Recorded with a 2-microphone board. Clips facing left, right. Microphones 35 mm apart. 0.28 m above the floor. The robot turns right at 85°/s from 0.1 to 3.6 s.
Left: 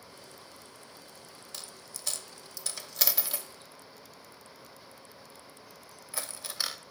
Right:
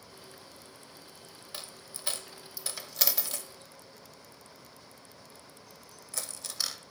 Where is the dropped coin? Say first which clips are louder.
Right 2 dB; 20° right (ahead or behind), 0.5 m; by 6.8 s 20° left (ahead or behind), 0.5 m.